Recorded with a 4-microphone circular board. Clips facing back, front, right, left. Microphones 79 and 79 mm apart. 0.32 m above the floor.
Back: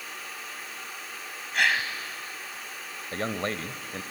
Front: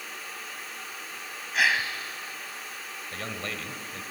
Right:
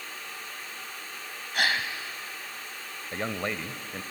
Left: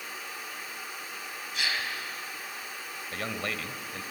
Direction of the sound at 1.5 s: 90° right.